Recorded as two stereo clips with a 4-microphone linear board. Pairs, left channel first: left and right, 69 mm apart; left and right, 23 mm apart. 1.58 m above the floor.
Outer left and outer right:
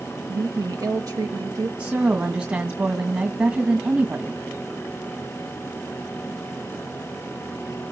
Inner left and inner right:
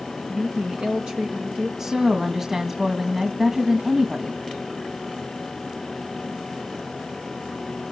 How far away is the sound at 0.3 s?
About 0.9 m.